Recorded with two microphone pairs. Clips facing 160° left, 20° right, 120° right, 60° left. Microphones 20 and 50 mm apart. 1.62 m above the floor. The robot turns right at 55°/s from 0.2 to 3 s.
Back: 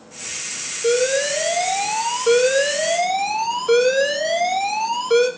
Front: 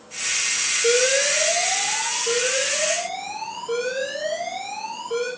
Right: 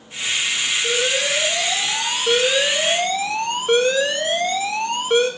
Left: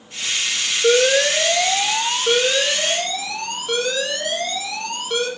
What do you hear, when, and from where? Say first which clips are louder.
0.8 s an alarm: back 2 dB, left 9 dB; 60° left, 4.5 m; by 5.3 s straight behind, 4.5 m